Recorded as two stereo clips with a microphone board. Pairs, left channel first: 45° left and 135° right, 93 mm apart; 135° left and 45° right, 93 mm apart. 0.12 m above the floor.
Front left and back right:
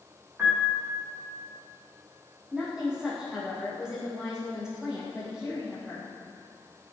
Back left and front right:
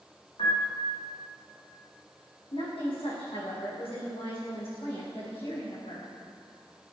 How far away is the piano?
About 6 m.